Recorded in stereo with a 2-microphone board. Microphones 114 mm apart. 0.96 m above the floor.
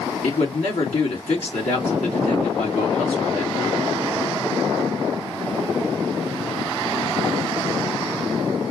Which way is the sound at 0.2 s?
75° left (ahead or behind).